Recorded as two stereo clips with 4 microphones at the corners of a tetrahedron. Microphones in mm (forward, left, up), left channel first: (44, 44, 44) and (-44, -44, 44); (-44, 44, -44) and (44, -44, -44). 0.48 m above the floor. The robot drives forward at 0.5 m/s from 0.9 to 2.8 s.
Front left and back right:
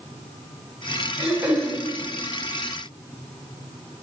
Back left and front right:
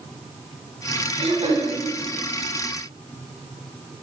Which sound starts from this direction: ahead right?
Throat clearing, at 1.2 s.